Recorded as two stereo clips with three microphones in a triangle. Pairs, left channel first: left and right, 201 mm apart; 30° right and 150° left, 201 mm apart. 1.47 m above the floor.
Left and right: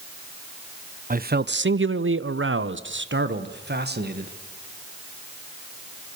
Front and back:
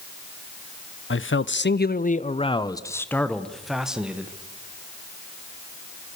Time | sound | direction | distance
1.1 | a man speaking | 40° right | 0.7 m